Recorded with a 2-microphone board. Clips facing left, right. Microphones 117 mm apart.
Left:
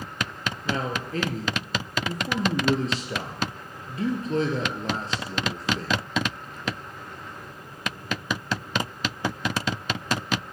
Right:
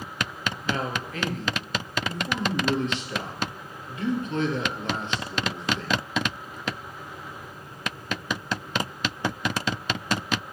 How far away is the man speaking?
About 3.5 m.